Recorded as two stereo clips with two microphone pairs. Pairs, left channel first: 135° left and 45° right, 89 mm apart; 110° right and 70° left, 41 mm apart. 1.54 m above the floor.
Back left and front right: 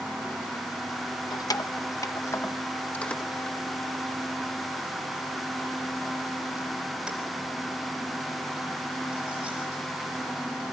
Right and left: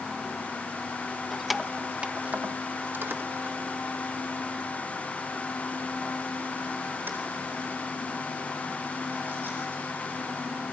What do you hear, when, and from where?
1.3 s keys jangling: 165° left, 1.0 m; by 9.8 s 30° left, 6.5 m